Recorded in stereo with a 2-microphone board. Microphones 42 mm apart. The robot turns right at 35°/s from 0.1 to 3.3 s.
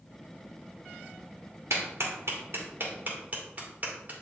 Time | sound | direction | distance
1.7 | a clap | 80° right | 1.8 m